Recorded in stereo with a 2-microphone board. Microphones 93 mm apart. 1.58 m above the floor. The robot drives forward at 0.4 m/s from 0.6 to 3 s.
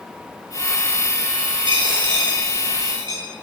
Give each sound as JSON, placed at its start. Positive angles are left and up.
{"t": 1.7, "sound": "a dropped coin", "side_deg": -65, "distance_m": 2.5}